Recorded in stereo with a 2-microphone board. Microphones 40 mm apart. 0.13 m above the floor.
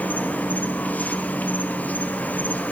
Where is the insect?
40° left (ahead or behind), 0.9 m.